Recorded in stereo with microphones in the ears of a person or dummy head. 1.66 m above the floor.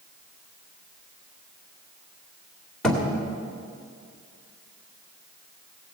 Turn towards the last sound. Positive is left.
turn(degrees=0)  # may be behind; listen again after turning